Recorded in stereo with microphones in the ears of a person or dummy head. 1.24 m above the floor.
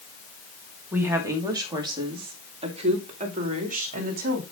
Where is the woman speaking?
5° right (ahead or behind), 2.5 m; by 4.4 s 45° right (ahead or behind), 3 m.